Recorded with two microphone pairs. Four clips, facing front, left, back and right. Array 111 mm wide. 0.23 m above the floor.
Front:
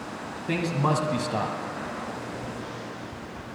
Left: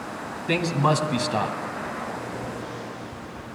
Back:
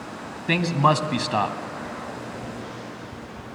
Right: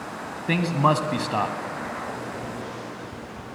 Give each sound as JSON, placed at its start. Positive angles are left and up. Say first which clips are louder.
{"t": 0.5, "sound": "a man speaking", "louder": "right 1 dB, back 5 dB", "azimuth_deg": -175, "distance_m": 1.7}